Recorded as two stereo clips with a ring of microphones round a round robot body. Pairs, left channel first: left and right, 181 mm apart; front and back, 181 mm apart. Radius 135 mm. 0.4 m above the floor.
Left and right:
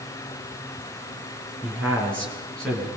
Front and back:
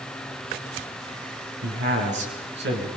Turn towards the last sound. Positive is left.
turn(degrees=175)